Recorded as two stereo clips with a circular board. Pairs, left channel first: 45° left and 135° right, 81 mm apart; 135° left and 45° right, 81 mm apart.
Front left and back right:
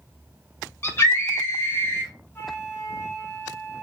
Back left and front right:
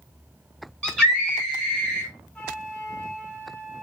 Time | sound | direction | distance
0.8 | a scream | 55° left | 1.5 m
2.4 | a flute | 70° left | 1.0 m